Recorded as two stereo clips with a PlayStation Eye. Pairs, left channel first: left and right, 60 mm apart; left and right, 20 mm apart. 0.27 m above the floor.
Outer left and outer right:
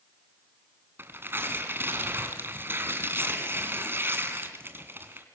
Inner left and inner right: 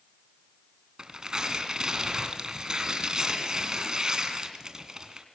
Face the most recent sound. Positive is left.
turn(degrees=-35)  # may be behind; listen again after turning